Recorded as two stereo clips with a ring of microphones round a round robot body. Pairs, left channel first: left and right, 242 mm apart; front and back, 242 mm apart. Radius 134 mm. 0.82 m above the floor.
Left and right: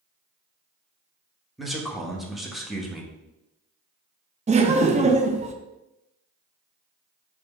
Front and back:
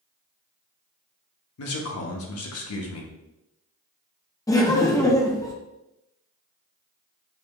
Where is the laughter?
65° right, 0.5 m.